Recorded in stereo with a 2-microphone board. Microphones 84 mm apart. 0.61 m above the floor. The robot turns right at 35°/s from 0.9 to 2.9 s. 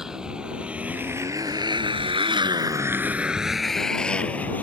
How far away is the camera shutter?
I don't hear a camera shutter.